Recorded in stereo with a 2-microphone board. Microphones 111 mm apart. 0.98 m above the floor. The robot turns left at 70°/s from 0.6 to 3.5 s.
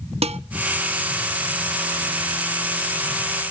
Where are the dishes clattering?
65° right (ahead or behind), 0.5 m.